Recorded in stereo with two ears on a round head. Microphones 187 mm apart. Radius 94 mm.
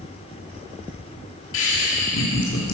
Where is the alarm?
No alarm in this recording.